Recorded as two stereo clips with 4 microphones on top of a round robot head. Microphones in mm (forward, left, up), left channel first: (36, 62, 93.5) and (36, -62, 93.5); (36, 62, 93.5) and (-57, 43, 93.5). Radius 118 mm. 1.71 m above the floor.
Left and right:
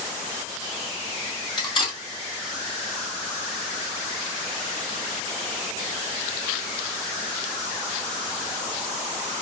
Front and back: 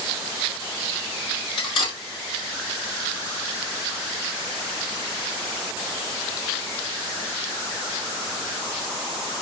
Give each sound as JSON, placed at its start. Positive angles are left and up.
{"t": 1.6, "sound": "cutlery clinking", "azimuth_deg": 40, "distance_m": 1.9}